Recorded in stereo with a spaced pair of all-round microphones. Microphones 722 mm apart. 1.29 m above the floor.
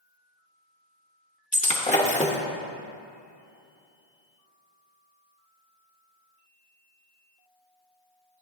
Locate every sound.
1.5 s breaking glass: 10° left (ahead or behind), 0.9 m